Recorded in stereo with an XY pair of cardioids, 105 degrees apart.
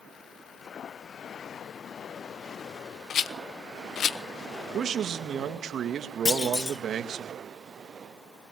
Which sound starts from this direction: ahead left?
A rattle, at 3.1 s.